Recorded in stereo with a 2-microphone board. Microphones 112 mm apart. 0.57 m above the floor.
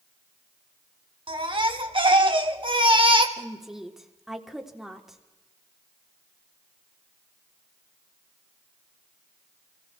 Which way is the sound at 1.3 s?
45° right (ahead or behind).